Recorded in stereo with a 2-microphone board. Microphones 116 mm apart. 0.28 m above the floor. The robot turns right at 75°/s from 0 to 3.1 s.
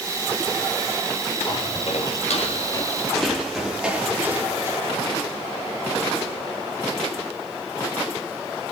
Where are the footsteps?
35° left (ahead or behind), 4 m; by 4.8 s 25° right (ahead or behind), 2.5 m.